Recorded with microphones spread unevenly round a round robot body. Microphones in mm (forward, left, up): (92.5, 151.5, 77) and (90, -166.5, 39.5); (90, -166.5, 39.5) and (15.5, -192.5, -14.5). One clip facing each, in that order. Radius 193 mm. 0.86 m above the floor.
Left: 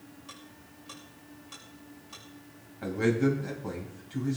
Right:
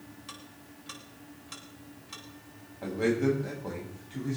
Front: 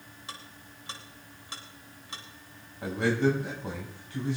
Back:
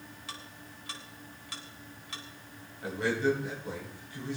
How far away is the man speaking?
About 6.5 m.